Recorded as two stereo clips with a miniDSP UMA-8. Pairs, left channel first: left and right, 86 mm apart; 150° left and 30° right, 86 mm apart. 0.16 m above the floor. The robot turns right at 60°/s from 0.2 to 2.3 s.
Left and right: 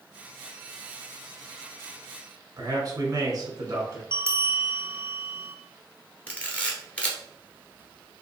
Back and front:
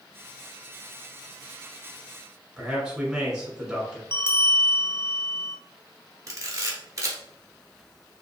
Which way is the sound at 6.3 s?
15° left.